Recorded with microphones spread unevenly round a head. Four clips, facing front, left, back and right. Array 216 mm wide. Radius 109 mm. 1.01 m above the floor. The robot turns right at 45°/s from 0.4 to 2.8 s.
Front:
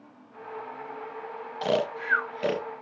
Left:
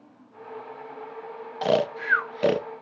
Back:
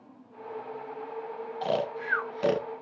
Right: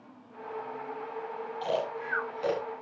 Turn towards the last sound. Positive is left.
turn(degrees=125)